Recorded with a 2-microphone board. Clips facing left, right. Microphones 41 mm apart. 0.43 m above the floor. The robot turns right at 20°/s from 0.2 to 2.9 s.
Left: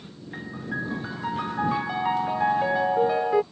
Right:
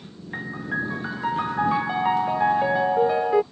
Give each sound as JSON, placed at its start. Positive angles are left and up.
{"t": 0.3, "sound": "a piano", "side_deg": -25}